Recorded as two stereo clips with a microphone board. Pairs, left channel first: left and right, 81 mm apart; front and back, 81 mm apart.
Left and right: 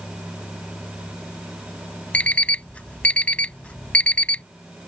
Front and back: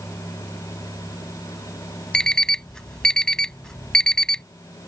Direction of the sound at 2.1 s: 60° left.